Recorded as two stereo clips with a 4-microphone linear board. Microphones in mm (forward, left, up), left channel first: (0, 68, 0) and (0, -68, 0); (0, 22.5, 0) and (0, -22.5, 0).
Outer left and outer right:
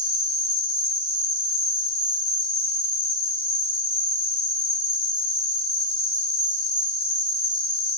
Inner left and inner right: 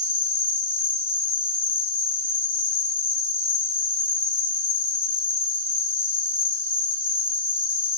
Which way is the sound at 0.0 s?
45° left (ahead or behind).